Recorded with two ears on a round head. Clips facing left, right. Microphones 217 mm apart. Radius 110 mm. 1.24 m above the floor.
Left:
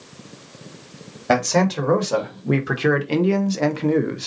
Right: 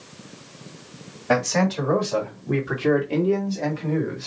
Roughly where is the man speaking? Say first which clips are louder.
Left 2 dB; left.